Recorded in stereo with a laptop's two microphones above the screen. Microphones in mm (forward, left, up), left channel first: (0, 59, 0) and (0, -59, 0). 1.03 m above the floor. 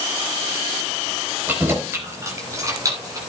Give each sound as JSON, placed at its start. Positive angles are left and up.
{"t": 1.5, "sound": "keys jangling", "side_deg": -15, "distance_m": 4.0}